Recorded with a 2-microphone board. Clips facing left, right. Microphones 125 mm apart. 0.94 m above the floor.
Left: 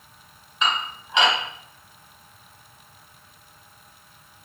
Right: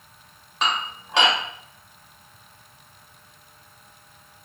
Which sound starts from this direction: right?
Dishes clattering, at 0.6 s.